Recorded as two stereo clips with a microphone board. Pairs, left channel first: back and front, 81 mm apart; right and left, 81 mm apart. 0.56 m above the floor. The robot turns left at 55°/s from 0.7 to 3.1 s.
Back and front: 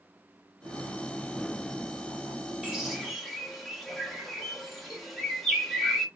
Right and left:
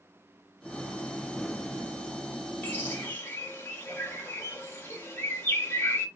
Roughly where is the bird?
Ahead right.